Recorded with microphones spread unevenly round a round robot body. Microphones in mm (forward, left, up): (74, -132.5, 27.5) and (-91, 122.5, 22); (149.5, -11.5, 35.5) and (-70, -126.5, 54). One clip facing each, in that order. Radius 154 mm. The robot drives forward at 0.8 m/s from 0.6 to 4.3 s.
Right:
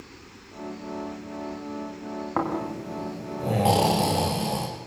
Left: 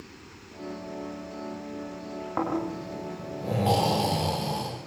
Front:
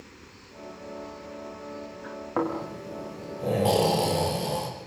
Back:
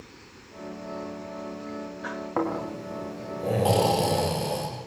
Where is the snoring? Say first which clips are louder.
Even, even; 55° right, 9 m; by 4.7 s 65° right, 8 m.